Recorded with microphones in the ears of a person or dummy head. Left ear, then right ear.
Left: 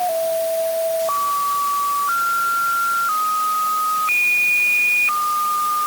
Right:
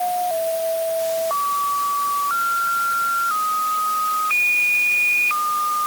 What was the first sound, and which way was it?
Only background noise.